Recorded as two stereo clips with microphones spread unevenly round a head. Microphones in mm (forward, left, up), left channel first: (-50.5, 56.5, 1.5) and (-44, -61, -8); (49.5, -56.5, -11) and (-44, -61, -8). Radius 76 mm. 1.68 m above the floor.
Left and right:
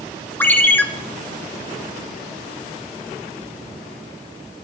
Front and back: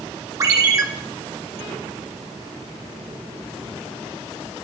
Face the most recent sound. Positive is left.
turn(degrees=150)